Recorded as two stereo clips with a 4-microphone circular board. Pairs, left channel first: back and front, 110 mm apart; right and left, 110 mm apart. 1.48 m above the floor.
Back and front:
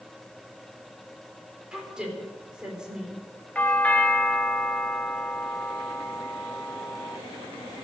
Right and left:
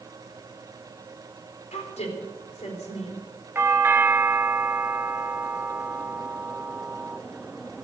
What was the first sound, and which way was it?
A woman speaking, 85° right.